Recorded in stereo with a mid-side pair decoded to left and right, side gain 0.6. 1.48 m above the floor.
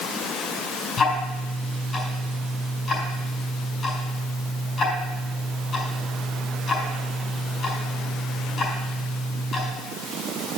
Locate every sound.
1.0 s ticking: 35° left, 4.5 m